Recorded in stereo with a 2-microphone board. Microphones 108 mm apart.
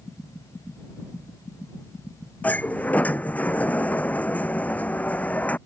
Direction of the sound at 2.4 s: 15° left (ahead or behind).